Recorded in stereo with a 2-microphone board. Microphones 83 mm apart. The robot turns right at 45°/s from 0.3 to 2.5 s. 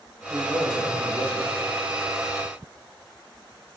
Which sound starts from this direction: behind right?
A man speaking, at 0.3 s.